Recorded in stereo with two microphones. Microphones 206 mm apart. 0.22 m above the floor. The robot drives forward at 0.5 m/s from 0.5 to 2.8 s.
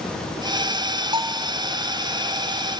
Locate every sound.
1.1 s a bell: 25° right (ahead or behind), 1.3 m; by 1.5 s 30° right (ahead or behind), 1.2 m